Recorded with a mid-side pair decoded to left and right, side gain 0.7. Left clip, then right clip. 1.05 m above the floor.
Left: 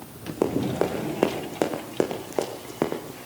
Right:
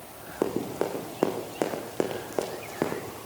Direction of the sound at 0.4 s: 15° left.